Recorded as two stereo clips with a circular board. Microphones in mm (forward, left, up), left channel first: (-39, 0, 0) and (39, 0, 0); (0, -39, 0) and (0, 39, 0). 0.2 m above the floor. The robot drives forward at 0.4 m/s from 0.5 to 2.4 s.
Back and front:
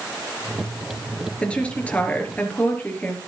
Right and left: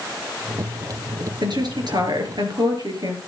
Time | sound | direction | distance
1.4 | a woman speaking | 105° left | 4 m